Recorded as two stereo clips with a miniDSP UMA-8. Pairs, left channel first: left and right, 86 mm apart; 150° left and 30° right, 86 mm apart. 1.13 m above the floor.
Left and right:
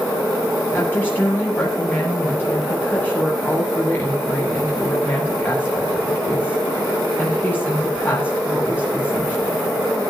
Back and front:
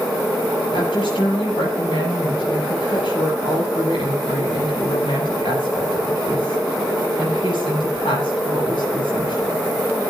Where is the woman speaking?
160° left, 8 m.